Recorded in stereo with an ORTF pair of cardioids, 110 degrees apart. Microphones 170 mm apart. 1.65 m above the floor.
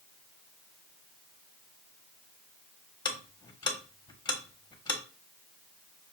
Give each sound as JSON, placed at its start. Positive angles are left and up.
{"t": 3.0, "sound": "ticking", "azimuth_deg": 25, "distance_m": 1.3}